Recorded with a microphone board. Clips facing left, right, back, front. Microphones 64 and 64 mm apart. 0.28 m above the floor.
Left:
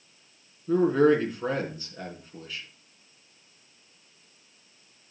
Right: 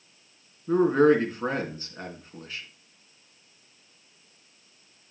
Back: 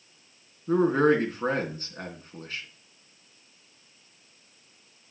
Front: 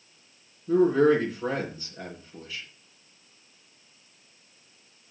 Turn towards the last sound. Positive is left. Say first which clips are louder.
# right 1 dB, front 1 dB
turn(degrees=-145)